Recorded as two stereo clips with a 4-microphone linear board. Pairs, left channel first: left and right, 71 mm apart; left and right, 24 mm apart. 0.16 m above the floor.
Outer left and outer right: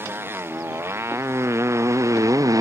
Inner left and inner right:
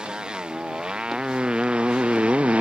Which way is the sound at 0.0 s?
35° right (ahead or behind).